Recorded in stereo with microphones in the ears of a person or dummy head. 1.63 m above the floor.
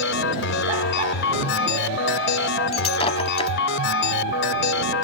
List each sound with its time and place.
0.0 s a machine running: 65° left (ahead or behind)
2.7 s breaking glass: 35° left (ahead or behind)